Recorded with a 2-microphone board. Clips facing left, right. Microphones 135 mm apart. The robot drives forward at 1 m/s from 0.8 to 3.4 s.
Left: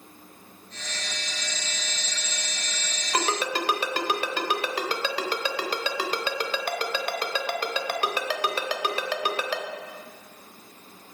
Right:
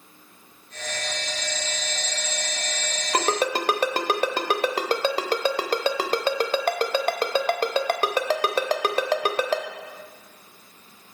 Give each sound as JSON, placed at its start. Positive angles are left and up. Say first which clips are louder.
{"t": 3.1, "sound": "a ringtone", "louder": "right 3 dB", "side_deg": -35, "distance_m": 0.8}